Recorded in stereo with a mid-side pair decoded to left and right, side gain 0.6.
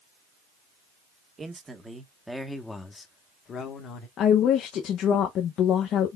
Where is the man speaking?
25° right, 1.3 m; by 4.1 s 55° left, 1.3 m.